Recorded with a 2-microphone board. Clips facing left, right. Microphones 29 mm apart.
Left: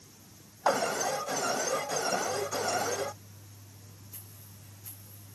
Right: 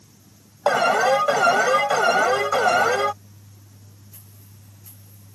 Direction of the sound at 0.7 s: 60° right (ahead or behind).